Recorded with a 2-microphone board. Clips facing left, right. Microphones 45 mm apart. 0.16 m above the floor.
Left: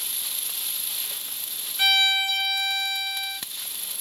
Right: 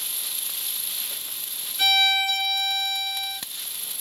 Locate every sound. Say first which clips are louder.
1.8 s a violin: even; 15° left (ahead or behind), 2 m